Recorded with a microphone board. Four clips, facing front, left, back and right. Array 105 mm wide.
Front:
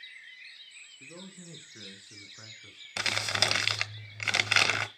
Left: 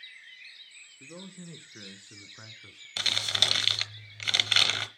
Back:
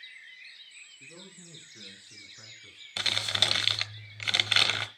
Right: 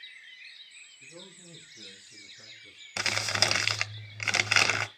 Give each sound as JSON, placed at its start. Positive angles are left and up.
{"t": 1.0, "sound": "a man speaking", "azimuth_deg": 70, "distance_m": 3.5}
{"t": 3.0, "sound": "crumpling", "azimuth_deg": -60, "distance_m": 1.1}